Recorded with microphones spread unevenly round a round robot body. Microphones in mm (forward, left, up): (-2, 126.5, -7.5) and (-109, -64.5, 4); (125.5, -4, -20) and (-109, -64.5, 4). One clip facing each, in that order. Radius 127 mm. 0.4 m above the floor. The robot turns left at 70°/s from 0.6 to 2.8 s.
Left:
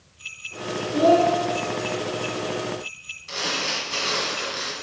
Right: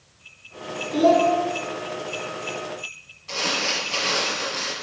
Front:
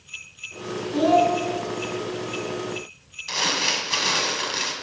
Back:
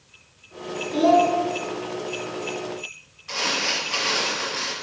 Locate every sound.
0.9 s a child speaking: 130° right, 3 m; by 1.3 s 155° right, 3 m
3.3 s crumpling: 15° right, 1.4 m